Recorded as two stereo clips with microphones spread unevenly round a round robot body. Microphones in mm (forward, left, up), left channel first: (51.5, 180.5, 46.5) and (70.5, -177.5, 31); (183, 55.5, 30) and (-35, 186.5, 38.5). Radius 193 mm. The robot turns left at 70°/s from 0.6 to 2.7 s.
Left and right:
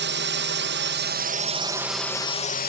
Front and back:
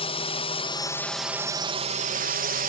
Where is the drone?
75° right; by 2.7 s 135° left.